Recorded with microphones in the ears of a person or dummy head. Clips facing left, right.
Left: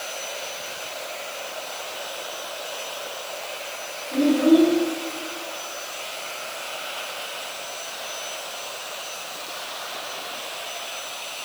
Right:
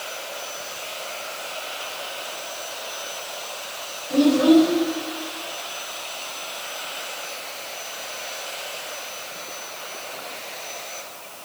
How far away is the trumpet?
No trumpet in this recording.